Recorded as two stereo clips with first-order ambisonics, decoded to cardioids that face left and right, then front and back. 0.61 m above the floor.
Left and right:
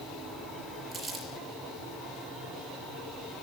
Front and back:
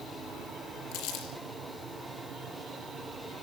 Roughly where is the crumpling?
Ahead.